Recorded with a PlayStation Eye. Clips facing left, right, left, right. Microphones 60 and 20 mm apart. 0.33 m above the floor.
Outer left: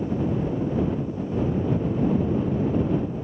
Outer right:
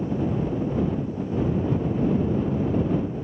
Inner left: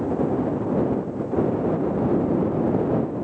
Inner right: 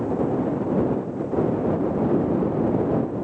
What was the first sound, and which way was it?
Only background noise.